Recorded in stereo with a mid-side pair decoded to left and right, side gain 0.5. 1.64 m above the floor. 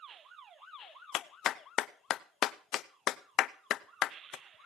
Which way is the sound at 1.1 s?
60° left.